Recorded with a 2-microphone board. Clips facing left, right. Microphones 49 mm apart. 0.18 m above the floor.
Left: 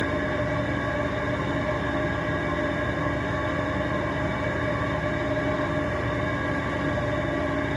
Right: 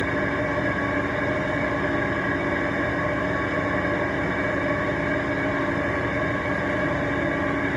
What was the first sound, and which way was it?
An engine running, 55° right (ahead or behind).